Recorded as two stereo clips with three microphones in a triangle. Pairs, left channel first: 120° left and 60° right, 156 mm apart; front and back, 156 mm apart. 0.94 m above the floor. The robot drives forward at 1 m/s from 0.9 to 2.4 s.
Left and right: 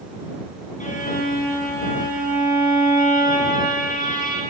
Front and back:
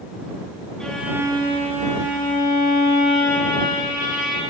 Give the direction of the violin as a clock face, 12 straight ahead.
9 o'clock.